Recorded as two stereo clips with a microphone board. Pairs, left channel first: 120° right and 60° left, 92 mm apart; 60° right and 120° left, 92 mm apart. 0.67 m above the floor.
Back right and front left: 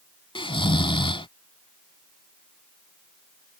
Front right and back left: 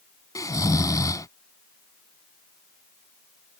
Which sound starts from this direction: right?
Snoring, at 0.3 s.